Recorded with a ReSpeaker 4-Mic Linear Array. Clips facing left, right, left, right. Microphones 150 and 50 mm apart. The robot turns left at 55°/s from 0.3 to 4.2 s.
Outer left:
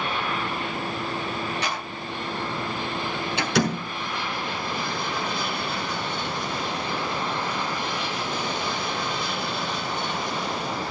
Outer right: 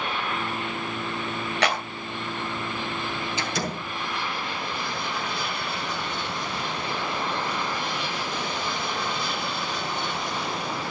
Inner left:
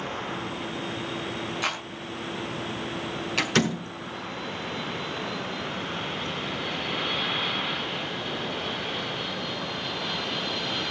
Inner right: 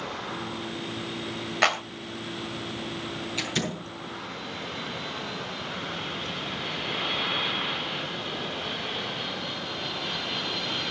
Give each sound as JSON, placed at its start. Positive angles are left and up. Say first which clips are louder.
{"t": 1.6, "sound": "a clap", "louder": "outer right 5 dB, inner right 8 dB", "side_deg": -80, "distance_m": 3.0}
{"t": 3.4, "sound": "a door slam", "louder": "outer left 10 dB, inner left 8 dB", "side_deg": 65, "distance_m": 5.5}